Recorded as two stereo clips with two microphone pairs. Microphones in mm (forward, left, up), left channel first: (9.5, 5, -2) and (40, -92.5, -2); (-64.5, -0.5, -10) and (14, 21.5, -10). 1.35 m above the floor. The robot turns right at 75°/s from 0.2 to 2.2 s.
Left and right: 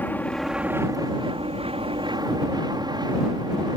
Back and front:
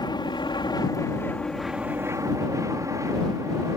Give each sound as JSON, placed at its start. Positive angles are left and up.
{"t": 0.0, "sound": "an aircraft", "azimuth_deg": 180}